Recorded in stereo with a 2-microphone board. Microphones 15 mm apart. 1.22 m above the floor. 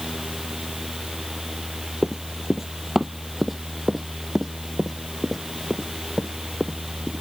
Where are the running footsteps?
30° right (ahead or behind); by 7.2 s 15° left (ahead or behind).